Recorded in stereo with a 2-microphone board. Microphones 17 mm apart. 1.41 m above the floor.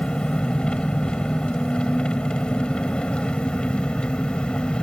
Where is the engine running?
75° left (ahead or behind).